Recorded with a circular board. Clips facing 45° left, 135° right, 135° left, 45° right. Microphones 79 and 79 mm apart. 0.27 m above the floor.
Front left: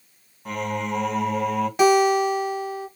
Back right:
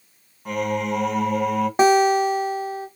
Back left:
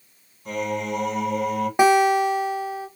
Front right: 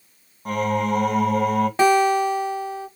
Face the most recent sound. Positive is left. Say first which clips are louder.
# back right 1 dB, back left 1 dB
turn(degrees=-160)